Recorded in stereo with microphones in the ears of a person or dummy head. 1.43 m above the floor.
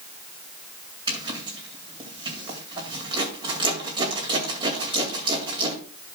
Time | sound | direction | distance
1.1 | a zipper | 25° right (ahead or behind) | 2.5 m